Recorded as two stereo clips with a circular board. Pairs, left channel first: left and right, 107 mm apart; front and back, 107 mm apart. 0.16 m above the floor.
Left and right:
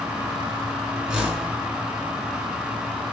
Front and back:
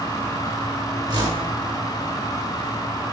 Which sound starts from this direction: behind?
A whoosh, at 1.1 s.